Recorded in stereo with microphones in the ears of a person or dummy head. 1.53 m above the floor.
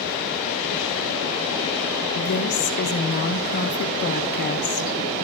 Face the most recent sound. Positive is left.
turn(degrees=50)  # may be behind; listen again after turning